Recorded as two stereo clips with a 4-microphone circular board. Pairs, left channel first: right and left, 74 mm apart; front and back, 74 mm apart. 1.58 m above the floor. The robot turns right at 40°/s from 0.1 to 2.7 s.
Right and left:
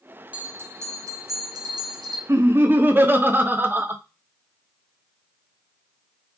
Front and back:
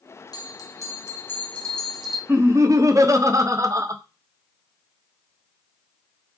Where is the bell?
20° left, 0.7 m; by 2.2 s 95° left, 0.7 m.